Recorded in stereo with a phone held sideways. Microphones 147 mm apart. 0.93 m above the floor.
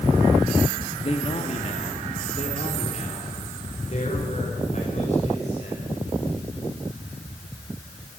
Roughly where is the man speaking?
Left.